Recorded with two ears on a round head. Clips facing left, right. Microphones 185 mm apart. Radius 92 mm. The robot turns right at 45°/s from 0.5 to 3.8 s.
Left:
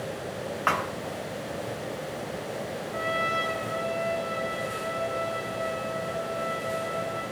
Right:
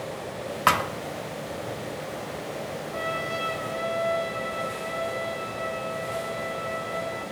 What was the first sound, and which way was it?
A thud, 50° right (ahead or behind).